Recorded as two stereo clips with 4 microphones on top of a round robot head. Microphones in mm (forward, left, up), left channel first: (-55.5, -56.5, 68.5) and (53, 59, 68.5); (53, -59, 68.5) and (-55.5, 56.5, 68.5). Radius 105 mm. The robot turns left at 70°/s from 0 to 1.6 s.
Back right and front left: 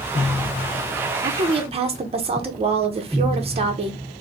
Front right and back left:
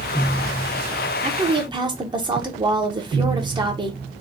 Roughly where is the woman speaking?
Left.